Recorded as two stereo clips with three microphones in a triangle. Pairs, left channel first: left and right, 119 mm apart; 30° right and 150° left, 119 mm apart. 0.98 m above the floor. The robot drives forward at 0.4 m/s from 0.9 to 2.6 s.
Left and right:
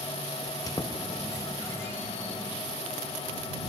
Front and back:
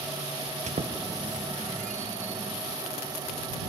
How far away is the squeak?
About 0.6 m.